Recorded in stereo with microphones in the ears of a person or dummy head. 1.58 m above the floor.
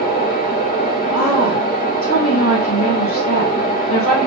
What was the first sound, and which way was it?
A fan, 30° left (ahead or behind).